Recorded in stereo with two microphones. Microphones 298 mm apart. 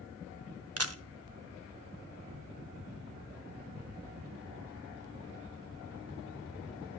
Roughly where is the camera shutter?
Right.